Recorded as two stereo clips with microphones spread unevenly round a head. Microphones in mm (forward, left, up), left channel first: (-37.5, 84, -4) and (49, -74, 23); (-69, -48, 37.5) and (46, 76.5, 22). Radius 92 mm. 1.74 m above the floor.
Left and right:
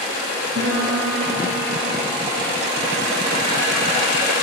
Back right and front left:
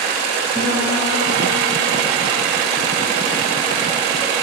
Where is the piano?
40° right, 4 m.